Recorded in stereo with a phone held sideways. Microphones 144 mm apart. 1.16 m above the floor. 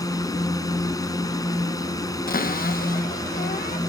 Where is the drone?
25° left (ahead or behind).